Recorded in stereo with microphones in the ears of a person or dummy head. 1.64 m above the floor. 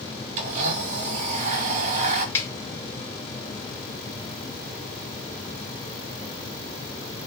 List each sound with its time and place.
0.4 s a blender: 35° right (ahead or behind), 0.8 m
2.4 s a snare drum: 15° left (ahead or behind), 0.7 m